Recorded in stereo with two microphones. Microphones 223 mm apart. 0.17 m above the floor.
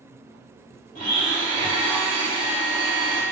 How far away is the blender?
About 4 m.